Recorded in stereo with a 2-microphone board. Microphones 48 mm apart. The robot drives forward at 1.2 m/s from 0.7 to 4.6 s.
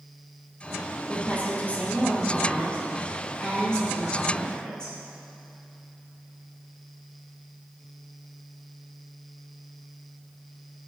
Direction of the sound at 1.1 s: 30° left (ahead or behind).